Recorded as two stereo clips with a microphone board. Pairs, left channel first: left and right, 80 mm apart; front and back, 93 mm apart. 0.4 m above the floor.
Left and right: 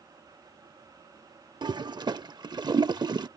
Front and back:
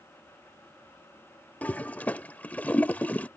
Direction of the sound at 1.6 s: 70° right.